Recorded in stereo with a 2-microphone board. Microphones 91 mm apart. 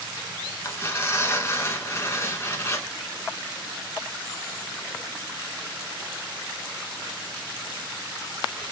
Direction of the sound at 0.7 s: 30° left (ahead or behind).